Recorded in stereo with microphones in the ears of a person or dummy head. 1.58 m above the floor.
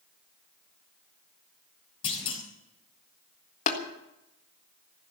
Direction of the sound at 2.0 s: 30° left (ahead or behind).